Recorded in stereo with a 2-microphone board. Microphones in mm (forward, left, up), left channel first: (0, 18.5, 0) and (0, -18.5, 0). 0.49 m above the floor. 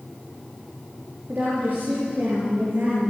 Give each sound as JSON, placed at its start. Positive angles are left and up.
{"t": 1.3, "sound": "a woman speaking", "side_deg": -60, "distance_m": 9.5}